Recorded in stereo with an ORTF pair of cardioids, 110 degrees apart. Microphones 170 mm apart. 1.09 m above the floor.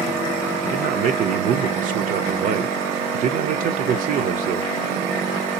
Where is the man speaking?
55° right, 0.5 m.